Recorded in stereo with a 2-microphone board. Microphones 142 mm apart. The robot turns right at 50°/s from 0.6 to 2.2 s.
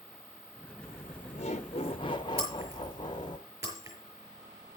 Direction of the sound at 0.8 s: 70° left.